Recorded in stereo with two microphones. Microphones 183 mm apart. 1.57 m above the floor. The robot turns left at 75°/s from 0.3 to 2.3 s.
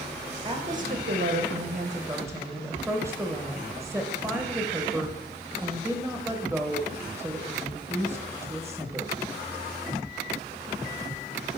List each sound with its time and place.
0.5 s a woman speaking: 25° right, 1.0 m; by 9.1 s 165° right, 1.0 m